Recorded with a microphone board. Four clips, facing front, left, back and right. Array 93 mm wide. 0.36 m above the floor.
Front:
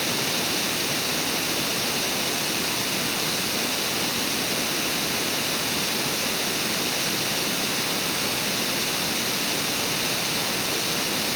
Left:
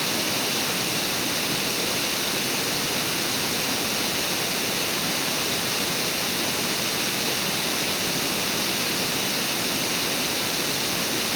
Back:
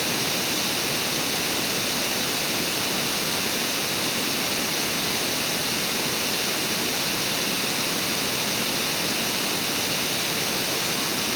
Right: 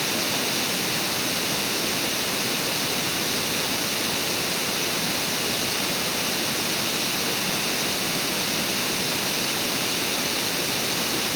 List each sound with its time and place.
Only background noise.